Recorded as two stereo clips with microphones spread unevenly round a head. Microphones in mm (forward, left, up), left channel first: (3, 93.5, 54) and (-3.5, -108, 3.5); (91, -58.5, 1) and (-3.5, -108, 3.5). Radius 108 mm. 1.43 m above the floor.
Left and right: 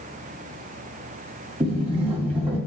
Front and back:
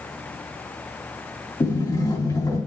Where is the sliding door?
20° right, 2.5 m.